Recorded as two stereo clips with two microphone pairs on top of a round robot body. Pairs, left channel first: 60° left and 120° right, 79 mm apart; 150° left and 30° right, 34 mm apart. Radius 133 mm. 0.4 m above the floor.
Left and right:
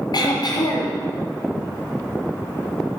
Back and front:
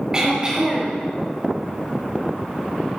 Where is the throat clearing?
40° left, 4.5 m.